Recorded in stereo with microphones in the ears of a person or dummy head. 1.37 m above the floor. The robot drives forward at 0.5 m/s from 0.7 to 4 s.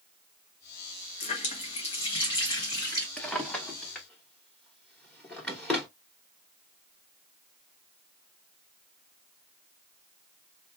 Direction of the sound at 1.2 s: 40° left (ahead or behind).